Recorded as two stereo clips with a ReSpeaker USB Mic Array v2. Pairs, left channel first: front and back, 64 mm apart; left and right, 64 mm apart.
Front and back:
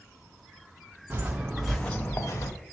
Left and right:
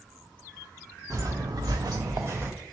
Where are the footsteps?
125° right, 0.7 m; by 2.5 s 35° right, 0.7 m.